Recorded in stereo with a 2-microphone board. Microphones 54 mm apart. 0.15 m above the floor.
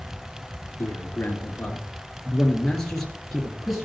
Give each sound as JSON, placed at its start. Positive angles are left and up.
{"t": 0.8, "sound": "a man speaking", "side_deg": 40, "distance_m": 2.5}